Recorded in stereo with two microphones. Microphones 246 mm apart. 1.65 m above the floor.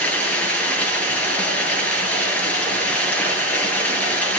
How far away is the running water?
About 9 m.